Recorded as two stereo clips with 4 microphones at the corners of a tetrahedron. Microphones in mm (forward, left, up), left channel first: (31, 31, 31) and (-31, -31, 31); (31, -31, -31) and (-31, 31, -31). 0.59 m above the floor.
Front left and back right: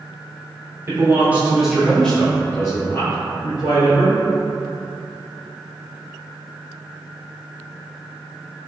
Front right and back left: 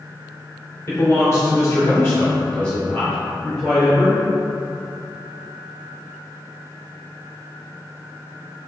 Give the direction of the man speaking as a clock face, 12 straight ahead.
3 o'clock.